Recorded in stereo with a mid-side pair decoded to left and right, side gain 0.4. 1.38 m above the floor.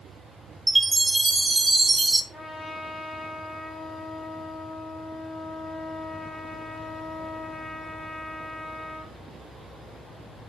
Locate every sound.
0.7 s a chime: 25° right, 0.8 m
2.3 s a trumpet: 15° left, 4 m